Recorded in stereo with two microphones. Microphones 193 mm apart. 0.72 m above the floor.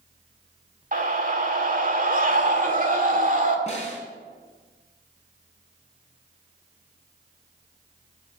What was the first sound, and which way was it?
A scream, 45° right (ahead or behind).